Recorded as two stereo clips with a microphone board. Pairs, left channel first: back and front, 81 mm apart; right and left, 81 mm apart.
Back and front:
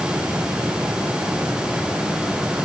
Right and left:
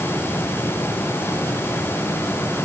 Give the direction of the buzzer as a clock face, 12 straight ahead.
I don't hear a buzzer.